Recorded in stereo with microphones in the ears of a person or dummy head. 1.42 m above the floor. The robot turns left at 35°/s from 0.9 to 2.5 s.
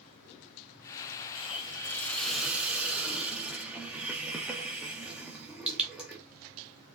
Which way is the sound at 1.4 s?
35° left.